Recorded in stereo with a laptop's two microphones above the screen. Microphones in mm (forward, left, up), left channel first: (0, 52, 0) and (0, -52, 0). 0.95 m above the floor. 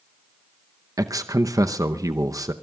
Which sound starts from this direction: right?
A man speaking, at 1.0 s.